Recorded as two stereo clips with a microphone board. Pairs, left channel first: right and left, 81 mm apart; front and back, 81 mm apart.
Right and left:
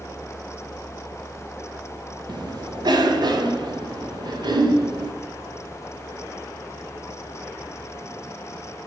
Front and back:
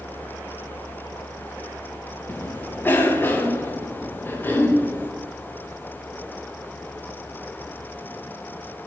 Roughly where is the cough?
Ahead left.